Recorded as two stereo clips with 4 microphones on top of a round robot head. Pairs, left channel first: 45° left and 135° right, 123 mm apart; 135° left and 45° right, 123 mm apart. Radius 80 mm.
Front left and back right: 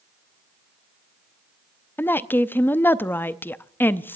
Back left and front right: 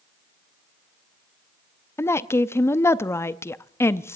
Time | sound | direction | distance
2.0 | a woman speaking | 95° left | 0.6 m